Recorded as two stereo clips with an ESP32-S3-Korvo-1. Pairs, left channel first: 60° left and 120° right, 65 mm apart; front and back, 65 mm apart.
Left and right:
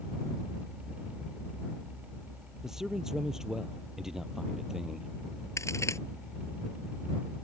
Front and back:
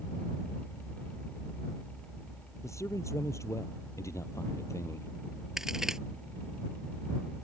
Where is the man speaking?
40° right.